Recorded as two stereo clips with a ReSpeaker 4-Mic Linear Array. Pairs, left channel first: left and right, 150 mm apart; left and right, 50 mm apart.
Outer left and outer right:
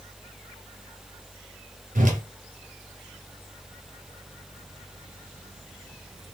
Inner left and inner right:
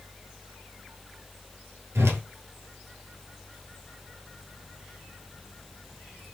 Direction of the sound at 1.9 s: 65° right (ahead or behind).